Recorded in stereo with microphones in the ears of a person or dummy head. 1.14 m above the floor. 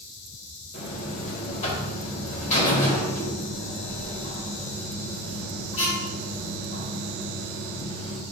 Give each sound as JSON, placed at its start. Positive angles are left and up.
{"t": 0.7, "sound": "a buzzer", "side_deg": 35, "distance_m": 3.5}